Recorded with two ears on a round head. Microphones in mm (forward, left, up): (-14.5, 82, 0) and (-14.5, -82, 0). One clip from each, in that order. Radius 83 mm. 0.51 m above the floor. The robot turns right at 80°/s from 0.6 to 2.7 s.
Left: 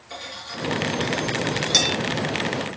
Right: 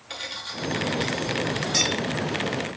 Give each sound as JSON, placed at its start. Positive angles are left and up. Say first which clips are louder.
{"t": 0.1, "sound": "cutlery clinking", "louder": "right 1 dB", "side_deg": -55, "distance_m": 0.7}